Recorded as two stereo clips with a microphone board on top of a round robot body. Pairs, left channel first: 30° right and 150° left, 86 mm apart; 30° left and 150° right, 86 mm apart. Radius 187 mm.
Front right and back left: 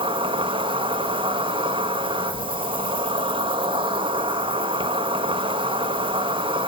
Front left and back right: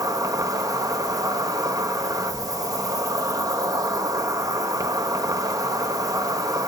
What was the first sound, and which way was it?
An insect, 160° left.